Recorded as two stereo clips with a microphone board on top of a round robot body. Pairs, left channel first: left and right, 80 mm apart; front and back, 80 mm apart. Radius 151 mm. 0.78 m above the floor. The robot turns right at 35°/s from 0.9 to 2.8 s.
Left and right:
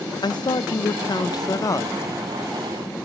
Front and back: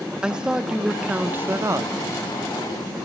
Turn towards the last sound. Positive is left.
turn(degrees=165)